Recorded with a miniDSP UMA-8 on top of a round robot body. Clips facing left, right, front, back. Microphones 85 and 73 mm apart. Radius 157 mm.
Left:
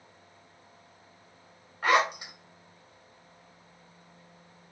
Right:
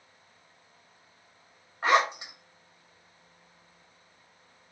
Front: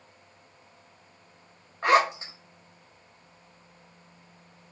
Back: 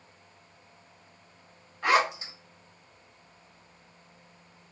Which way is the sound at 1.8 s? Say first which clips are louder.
Right 1 dB, front 3 dB; 35° right.